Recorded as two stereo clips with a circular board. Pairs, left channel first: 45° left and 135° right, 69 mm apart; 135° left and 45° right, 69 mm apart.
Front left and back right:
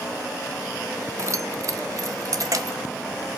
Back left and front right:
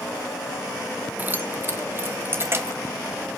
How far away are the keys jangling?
About 0.6 m.